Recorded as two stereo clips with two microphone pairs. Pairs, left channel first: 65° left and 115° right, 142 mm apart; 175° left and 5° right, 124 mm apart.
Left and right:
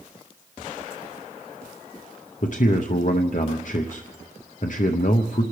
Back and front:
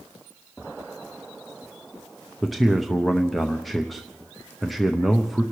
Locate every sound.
2.4 s a man speaking: 85° left, 0.7 m